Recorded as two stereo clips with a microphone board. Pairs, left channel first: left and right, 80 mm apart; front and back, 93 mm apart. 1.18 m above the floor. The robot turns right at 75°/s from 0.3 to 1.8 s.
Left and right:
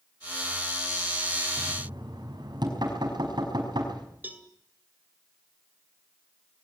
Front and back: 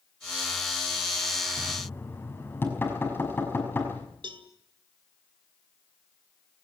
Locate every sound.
1.6 s knocking: 85° right, 5.5 m; by 4.1 s 65° right, 5.5 m
4.2 s a cowbell: 155° right, 2 m